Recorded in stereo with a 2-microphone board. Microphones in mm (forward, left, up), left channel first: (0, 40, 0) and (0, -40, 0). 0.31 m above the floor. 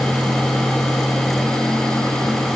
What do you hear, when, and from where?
Only background noise.